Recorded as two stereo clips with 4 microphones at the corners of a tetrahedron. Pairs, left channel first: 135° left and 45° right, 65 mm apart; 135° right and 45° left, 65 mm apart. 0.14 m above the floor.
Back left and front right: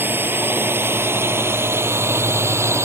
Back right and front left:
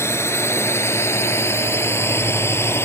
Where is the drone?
95° right; by 2.9 s 85° right.